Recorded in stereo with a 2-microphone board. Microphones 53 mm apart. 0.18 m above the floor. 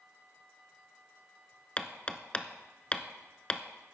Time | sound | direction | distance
1.8 | hammering | 25° left (ahead or behind) | 0.7 m